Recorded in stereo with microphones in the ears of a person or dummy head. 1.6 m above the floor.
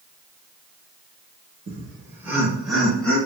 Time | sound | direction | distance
1.7 | laughter | 40° right (ahead or behind) | 0.9 m